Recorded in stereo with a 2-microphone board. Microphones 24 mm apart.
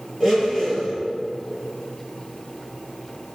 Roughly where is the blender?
Centre.